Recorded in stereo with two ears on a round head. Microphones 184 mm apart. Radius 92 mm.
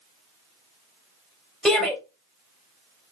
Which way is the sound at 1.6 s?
Centre (ahead or behind).